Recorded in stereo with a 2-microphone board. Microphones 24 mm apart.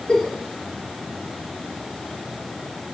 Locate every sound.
0.1 s a giggle: 30° left (ahead or behind), 1.7 m